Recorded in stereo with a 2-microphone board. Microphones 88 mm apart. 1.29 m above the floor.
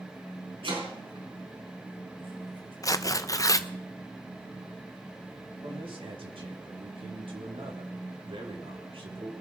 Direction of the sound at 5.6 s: 85° right.